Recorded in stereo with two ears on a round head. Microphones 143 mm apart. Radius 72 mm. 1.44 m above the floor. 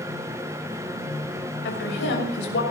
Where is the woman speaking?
85° left, 6 m.